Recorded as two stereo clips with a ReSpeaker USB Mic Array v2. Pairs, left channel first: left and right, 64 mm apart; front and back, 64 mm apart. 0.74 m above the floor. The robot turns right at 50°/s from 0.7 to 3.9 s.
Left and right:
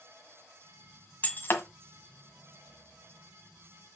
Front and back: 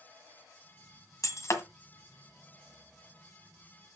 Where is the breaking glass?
25° left, 1.6 m; by 1.6 s 45° left, 1.6 m.